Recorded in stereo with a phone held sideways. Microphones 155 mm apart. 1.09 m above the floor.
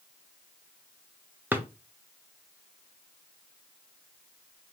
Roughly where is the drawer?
Centre.